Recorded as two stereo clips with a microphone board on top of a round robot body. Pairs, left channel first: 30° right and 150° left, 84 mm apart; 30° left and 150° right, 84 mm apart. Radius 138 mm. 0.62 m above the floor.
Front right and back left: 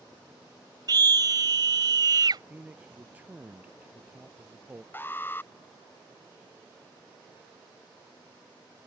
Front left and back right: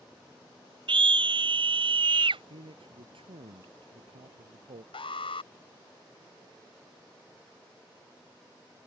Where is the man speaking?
135° right.